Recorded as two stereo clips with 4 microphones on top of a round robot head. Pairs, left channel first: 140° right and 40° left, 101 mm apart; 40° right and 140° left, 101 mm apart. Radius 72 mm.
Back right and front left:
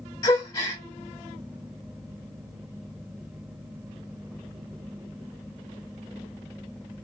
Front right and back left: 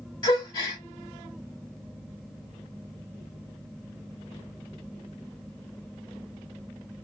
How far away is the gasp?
About 1.1 m.